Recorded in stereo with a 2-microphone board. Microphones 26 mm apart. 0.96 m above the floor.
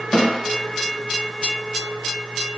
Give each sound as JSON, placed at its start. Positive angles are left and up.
{"t": 0.1, "sound": "a snare drum", "side_deg": 40, "distance_m": 0.7}